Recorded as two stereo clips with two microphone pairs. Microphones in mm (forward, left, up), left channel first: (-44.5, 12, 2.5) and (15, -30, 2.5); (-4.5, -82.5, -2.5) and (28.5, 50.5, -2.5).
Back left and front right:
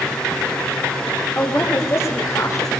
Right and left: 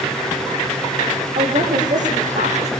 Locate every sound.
1.4 s a woman speaking: 90° left, 5.5 m; by 2.7 s 105° left, 5 m